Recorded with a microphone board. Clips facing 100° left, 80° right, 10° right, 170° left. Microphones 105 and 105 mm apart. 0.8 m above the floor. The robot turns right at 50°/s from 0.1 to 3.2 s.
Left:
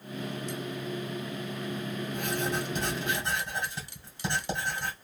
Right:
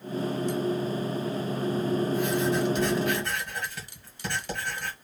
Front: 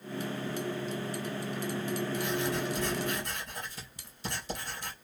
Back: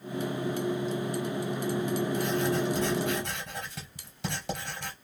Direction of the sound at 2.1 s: 120° left.